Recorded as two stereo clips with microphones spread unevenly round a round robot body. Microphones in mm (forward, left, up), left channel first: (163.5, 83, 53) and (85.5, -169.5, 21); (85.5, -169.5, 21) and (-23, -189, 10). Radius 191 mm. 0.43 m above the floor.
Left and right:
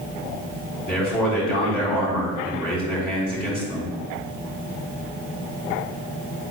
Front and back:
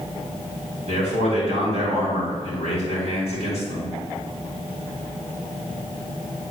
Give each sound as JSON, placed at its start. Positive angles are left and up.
{"t": 0.9, "sound": "a man speaking", "azimuth_deg": 165, "distance_m": 3.0}